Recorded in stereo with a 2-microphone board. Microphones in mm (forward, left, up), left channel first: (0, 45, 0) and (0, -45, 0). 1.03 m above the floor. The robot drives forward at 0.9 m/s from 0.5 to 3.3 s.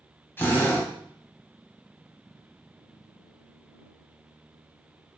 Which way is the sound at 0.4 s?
20° left (ahead or behind).